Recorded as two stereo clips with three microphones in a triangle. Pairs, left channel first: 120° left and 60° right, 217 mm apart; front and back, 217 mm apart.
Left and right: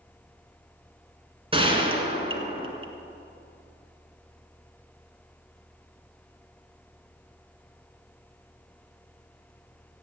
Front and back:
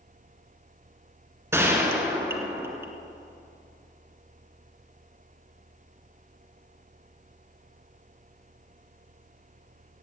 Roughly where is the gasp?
No gasp in this recording.